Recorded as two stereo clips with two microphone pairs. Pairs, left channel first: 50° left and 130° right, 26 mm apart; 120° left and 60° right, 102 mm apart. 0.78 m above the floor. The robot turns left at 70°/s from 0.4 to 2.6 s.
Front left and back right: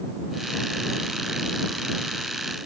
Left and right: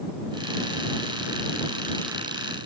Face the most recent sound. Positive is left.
No sound to turn to.